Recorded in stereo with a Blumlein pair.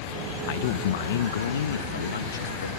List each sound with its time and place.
0.5 s a man speaking: 50° left; by 2.7 s 75° left